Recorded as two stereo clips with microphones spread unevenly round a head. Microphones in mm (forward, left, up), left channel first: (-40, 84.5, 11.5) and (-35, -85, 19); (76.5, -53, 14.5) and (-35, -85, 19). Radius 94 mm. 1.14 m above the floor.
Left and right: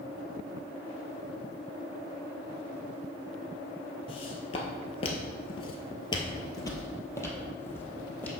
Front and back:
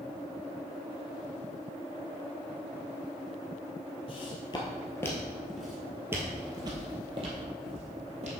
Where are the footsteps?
40° left, 1.5 m; by 8.3 s 170° left, 2 m.